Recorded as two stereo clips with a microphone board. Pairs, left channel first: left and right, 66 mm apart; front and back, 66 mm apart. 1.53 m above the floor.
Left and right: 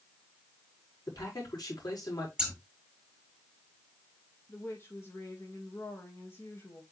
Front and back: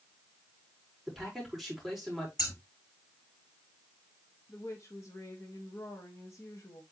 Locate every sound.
1.1 s a man speaking: 90° left, 4.5 m
2.4 s scissors: 10° right, 5 m
4.5 s a woman speaking: 40° left, 2 m